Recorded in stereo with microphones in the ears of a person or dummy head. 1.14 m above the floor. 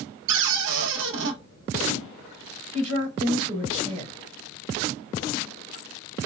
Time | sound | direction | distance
0.3 | a cupboard door | 70° right (ahead or behind) | 0.9 m
2.7 | a woman speaking | 40° right (ahead or behind) | 2.5 m